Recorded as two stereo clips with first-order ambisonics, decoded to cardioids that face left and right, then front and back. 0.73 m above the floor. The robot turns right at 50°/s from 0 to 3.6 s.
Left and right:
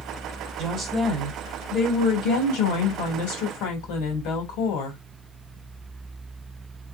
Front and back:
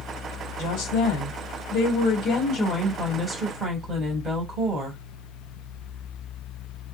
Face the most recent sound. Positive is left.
turn(degrees=115)